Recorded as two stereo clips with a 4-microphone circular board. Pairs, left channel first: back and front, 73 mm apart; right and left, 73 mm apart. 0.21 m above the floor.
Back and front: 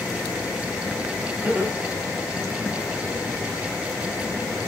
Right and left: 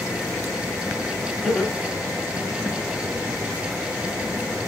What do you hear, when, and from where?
1.4 s laughter: 10° right, 1.1 m; by 2.8 s 135° right, 1.0 m